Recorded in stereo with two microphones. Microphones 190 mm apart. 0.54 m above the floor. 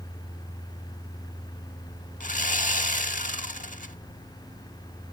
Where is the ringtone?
No ringtone in this recording.